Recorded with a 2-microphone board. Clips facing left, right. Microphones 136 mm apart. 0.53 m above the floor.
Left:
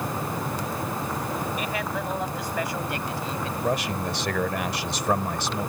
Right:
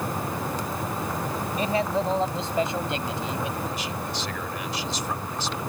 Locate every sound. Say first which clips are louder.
1.6 s a man speaking: right 5 dB; 30° right (ahead or behind); by 3.5 s 20° right (ahead or behind)
3.6 s a man speaking: left 5 dB; 65° left (ahead or behind)